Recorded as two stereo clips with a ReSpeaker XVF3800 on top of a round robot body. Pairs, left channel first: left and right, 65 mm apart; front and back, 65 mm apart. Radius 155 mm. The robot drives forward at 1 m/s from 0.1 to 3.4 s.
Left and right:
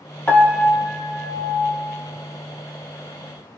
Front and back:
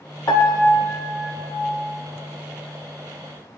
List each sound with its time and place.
0.3 s a piano: 25° left, 1.9 m; by 1.7 s 85° left, 1.1 m